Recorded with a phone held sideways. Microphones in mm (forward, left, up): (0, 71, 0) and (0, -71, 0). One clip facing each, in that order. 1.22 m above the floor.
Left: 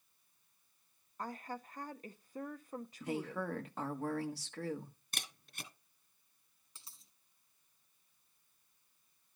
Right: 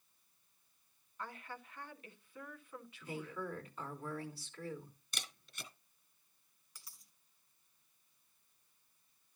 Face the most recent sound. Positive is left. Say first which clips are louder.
# left 1 dB
turn(degrees=25)  # may be behind; listen again after turning